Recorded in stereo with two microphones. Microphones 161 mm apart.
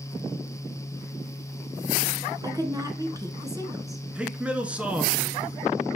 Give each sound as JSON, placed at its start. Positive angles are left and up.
{"t": 2.4, "sound": "a woman speaking", "side_deg": -20, "distance_m": 1.3}
{"t": 4.2, "sound": "a man speaking", "side_deg": -10, "distance_m": 1.1}